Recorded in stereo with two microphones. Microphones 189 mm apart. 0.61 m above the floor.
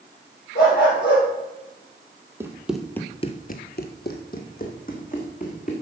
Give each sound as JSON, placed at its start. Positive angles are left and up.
{"t": 0.6, "sound": "a dog barking", "side_deg": 55, "distance_m": 5.5}
{"t": 2.4, "sound": "running footsteps", "side_deg": -10, "distance_m": 1.4}